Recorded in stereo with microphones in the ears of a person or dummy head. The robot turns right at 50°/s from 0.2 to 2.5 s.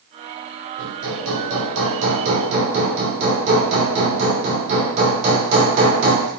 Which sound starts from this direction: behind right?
Hammering, at 0.8 s.